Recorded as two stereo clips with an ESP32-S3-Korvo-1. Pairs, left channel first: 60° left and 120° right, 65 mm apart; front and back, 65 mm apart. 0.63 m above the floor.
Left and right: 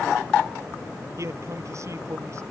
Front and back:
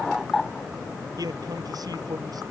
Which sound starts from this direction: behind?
A man speaking, at 1.2 s.